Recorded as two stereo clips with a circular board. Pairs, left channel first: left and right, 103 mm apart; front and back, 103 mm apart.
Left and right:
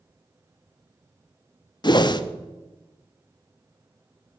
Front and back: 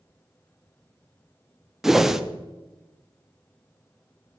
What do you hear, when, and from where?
1.8 s a whoosh: 95° left, 0.5 m